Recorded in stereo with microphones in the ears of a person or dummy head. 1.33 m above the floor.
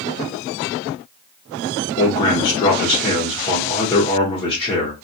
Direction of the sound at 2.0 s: 30° left (ahead or behind).